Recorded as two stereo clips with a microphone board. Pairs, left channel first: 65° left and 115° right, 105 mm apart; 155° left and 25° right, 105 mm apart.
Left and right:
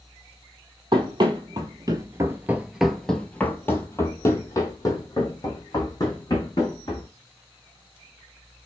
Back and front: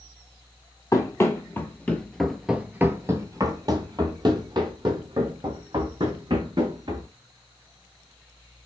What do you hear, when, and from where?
0.9 s running footsteps: 145° right, 1.2 m; by 7.1 s 20° left, 3 m